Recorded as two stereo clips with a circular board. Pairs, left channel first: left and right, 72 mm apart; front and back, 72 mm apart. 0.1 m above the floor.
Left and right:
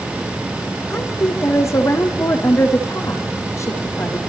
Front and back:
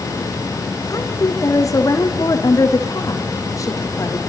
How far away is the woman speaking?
About 5 m.